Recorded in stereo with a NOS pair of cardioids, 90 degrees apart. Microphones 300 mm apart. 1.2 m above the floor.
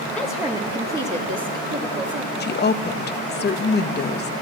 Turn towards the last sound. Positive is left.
turn(degrees=35)